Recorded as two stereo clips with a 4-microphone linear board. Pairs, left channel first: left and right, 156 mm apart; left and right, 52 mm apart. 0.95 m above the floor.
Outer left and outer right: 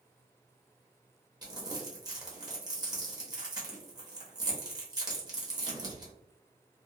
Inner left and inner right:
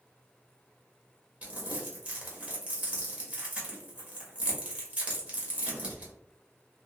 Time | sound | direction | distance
1.4 | crumpling | 25° right (ahead or behind) | 0.9 m